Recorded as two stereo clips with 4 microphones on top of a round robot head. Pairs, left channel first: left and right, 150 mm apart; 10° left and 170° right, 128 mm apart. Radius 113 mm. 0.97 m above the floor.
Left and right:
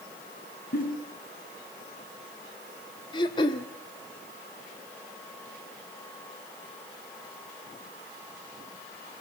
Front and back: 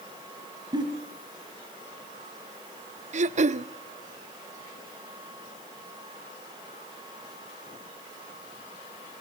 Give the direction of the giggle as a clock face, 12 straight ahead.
8 o'clock.